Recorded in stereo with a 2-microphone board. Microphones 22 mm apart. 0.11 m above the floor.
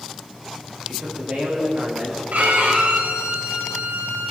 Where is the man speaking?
60° right (ahead or behind), 9.5 m.